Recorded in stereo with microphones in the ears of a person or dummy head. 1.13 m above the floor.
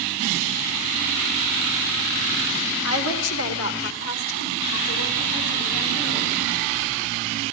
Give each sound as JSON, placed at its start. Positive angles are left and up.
{"t": 2.8, "sound": "a woman speaking", "side_deg": 80, "distance_m": 2.5}